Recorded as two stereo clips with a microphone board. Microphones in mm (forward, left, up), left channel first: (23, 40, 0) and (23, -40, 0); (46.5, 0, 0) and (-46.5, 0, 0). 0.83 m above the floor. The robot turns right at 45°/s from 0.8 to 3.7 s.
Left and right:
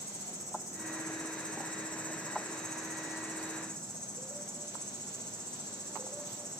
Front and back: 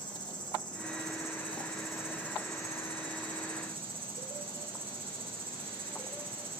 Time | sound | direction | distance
0.0 | an insect | 40° left | 6.5 m